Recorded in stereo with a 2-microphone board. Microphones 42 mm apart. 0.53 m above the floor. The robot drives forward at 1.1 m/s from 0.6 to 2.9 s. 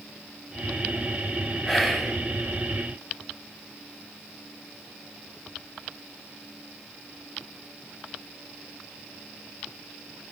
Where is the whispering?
Centre (ahead or behind), 4 m.